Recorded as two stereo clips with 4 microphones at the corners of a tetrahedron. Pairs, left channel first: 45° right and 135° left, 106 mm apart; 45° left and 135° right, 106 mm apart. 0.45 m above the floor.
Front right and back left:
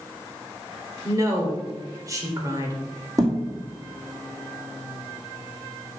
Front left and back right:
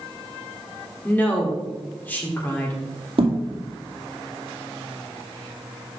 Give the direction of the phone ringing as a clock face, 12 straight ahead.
I don't hear a phone ringing.